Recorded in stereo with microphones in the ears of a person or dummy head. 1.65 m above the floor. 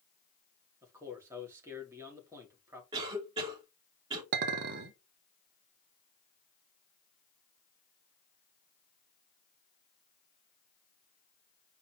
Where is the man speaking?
10° right (ahead or behind), 3 m.